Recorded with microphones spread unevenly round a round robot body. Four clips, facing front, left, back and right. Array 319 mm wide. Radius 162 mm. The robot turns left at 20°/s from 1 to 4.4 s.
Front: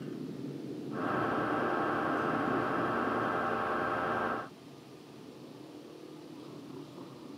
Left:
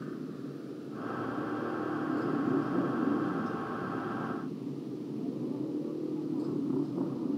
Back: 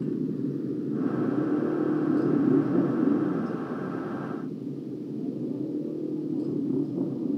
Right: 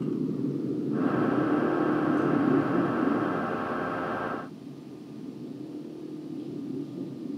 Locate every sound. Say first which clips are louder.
0.0 s a motorcycle: right 10 dB, back 11 dB; 140° right; by 7.4 s 175° left